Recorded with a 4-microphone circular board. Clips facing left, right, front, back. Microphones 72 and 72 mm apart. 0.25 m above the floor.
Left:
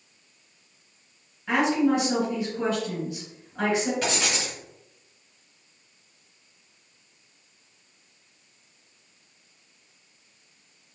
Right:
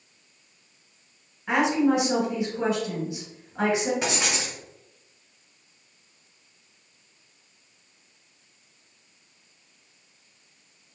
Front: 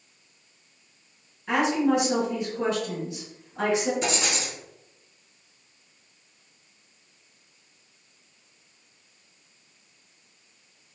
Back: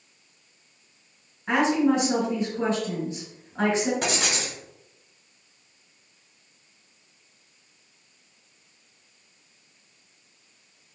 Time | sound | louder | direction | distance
1.5 | a woman speaking | even, back 1 dB | 160° right | 1.7 m
4.0 | writing | even, even | 160° right | 0.8 m